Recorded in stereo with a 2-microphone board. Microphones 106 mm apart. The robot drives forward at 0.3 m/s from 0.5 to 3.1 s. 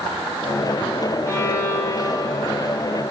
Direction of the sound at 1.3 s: 30° left (ahead or behind).